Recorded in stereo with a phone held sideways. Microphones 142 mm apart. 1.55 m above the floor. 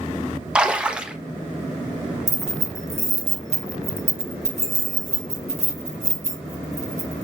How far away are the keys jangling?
About 1.1 m.